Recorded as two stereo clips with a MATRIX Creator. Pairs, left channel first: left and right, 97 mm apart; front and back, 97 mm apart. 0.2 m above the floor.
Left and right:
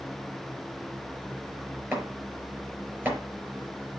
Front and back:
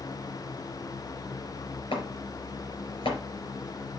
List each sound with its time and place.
1.9 s chopping: 20° right, 4.5 m